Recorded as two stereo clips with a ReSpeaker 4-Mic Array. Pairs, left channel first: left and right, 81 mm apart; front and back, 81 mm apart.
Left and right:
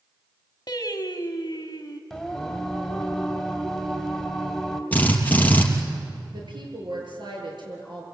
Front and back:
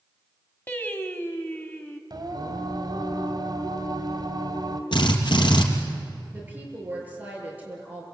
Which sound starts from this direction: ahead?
A drill, at 4.9 s.